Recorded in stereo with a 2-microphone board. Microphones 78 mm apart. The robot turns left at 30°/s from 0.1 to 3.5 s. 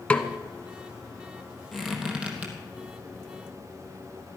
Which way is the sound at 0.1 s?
15° left (ahead or behind).